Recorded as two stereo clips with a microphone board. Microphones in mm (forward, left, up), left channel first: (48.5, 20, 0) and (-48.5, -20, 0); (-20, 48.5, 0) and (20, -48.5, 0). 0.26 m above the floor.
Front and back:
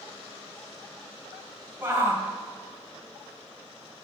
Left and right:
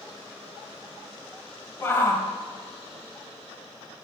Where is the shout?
155° left, 1.1 m.